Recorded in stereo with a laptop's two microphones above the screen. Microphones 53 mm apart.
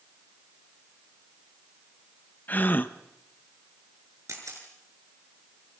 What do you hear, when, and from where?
2.5 s a gasp: 35° left (ahead or behind), 1.1 m
4.3 s a camera shutter: 75° right (ahead or behind), 5.5 m